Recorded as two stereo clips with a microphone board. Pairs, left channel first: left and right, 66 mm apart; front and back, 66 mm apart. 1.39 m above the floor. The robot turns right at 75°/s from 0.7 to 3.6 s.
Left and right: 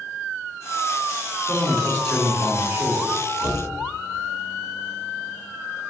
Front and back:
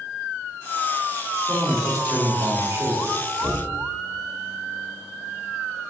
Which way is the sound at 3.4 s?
80° left.